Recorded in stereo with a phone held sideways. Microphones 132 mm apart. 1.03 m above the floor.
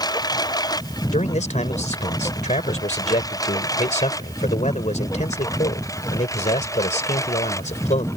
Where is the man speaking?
65° left (ahead or behind).